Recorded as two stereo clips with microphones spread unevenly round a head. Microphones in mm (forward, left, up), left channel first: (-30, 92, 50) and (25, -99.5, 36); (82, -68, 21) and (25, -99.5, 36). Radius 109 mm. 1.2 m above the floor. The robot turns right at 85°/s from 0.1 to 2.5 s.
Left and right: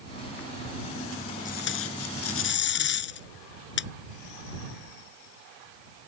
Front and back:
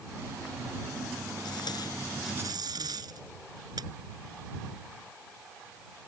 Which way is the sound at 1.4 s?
50° left.